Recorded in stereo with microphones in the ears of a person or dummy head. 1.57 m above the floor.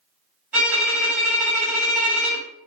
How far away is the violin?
About 1.9 m.